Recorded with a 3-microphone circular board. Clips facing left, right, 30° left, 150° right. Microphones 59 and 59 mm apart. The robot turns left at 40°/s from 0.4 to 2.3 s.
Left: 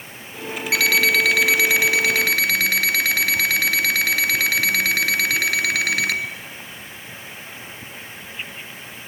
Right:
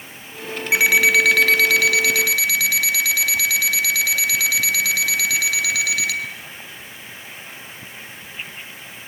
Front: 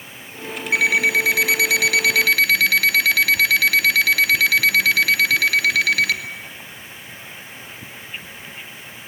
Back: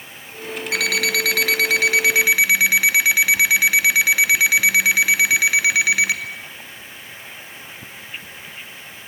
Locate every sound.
0.7 s an alarm clock: 160° right, 2 m; by 6.2 s 135° left, 2 m